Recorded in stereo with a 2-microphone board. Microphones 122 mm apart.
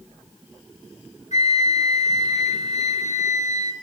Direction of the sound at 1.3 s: 70° left (ahead or behind).